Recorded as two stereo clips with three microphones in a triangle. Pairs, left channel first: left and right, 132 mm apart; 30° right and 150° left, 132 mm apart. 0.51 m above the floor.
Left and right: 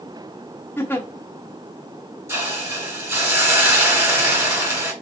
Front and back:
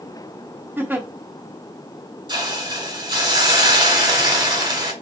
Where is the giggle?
115° left, 0.8 m.